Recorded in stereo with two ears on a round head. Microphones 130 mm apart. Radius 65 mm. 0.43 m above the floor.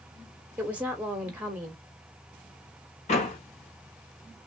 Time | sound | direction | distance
0.6 | a woman speaking | 10° right (ahead or behind) | 1.3 m
3.1 | a door slam | 50° left (ahead or behind) | 1.9 m